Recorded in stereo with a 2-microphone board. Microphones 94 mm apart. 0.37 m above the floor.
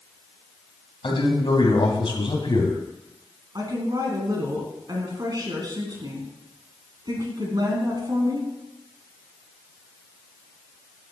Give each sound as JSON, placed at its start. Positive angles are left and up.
{"t": 1.0, "sound": "a man speaking", "side_deg": 65, "distance_m": 2.5}
{"t": 3.5, "sound": "a woman speaking", "side_deg": -45, "distance_m": 3.0}